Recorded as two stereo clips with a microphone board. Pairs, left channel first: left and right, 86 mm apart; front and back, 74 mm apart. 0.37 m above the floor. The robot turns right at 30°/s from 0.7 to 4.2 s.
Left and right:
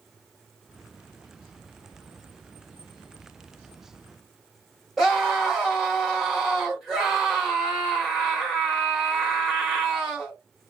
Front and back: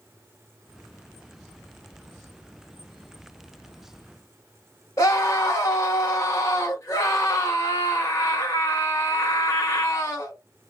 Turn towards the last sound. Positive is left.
turn(degrees=0)